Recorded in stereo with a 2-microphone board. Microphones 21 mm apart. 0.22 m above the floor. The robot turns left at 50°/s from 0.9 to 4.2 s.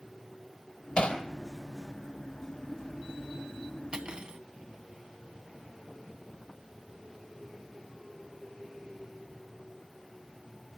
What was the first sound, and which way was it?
Hammering, 55° left (ahead or behind).